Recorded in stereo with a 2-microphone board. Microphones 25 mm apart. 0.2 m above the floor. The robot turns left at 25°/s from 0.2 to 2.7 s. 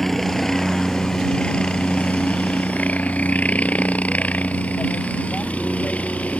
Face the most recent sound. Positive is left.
turn(degrees=55)  # may be behind; listen again after turning